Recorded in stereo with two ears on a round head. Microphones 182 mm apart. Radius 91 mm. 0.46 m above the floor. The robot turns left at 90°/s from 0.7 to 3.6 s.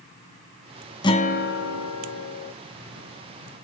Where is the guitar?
160° left, 1.1 m; by 2.5 s 25° left, 1.1 m.